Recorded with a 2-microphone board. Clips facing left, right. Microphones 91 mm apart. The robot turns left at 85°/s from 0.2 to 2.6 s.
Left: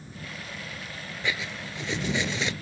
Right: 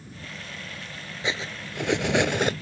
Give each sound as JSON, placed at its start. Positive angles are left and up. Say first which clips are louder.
{"t": 1.2, "sound": "cutlery clinking", "louder": "right 1 dB", "azimuth_deg": -20}